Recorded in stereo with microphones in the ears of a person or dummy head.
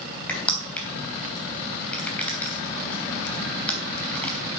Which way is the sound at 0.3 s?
10° left (ahead or behind).